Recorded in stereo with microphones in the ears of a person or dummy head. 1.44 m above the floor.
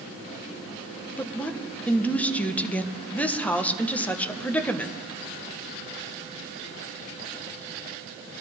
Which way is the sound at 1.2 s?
10° left (ahead or behind).